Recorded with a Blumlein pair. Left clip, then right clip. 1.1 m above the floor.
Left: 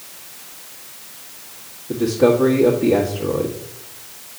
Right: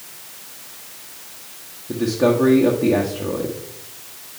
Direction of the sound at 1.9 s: 5° right.